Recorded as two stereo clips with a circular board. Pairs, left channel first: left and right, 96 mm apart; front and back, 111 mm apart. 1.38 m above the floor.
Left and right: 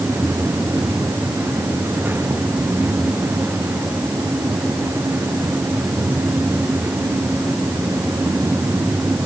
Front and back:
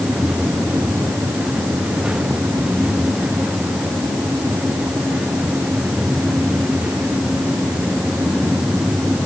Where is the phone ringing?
I don't hear a phone ringing.